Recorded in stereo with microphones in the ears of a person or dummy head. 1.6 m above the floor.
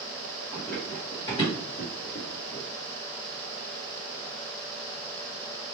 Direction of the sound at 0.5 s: 5° left (ahead or behind).